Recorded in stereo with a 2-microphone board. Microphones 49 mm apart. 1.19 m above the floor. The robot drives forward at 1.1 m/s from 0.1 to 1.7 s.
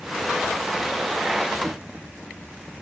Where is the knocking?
25° right (ahead or behind), 1.9 m.